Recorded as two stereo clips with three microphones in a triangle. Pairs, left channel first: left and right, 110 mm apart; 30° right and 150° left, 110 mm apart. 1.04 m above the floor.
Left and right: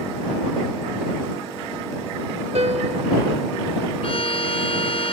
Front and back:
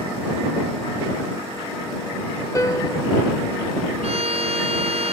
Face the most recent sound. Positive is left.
turn(degrees=125)